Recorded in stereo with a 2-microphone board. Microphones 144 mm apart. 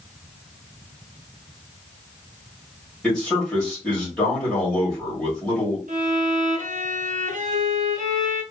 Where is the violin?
70° right (ahead or behind), 0.6 m.